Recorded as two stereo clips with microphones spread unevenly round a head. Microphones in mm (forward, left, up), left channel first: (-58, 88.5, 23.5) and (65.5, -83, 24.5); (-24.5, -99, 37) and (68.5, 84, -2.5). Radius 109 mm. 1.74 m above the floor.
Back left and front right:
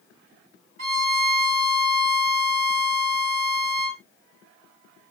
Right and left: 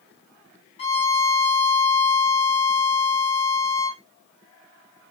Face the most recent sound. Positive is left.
turn(degrees=-80)